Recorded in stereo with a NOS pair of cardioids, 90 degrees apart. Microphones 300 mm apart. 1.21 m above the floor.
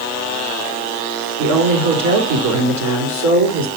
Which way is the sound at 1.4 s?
60° right.